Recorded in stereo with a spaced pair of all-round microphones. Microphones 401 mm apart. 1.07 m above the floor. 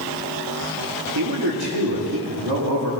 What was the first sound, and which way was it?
A man speaking, 70° right (ahead or behind).